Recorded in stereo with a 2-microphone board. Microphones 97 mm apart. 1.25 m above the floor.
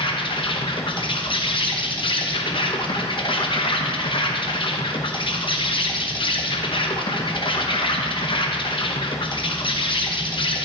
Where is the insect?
60° left (ahead or behind), 0.9 m.